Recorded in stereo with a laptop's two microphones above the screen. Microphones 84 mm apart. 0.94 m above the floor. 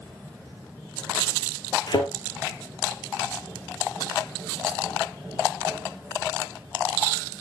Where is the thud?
55° left (ahead or behind), 2 m.